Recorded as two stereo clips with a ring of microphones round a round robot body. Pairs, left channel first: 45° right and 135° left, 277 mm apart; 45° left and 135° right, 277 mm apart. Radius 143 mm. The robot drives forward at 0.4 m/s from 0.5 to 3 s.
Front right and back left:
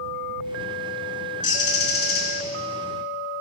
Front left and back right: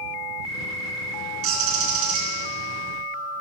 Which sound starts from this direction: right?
A bird, at 1.4 s.